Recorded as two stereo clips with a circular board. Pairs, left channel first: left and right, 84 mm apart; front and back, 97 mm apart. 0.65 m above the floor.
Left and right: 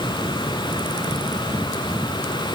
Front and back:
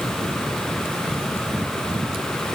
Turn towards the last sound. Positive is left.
No sound to turn to.